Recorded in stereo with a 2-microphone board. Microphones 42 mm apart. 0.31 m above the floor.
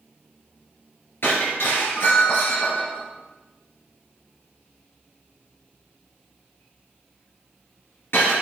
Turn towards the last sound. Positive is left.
turn(degrees=65)  # may be behind; listen again after turning